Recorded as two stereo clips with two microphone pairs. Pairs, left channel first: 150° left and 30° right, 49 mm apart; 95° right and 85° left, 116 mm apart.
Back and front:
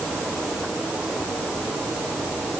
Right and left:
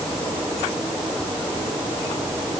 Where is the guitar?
No guitar in this recording.